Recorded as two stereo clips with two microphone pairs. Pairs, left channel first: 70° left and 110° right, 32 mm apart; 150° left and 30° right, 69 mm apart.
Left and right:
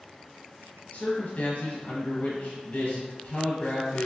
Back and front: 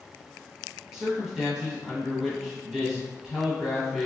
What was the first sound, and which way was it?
A man speaking, 60° left.